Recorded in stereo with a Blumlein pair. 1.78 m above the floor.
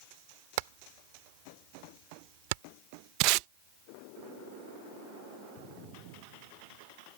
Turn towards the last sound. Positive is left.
turn(degrees=-40)